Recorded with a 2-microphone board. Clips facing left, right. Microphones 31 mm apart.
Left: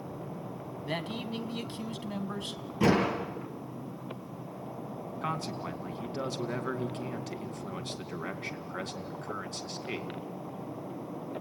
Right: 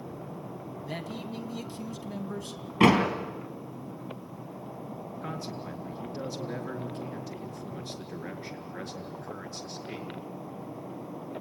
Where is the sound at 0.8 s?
45° left (ahead or behind), 1.5 m.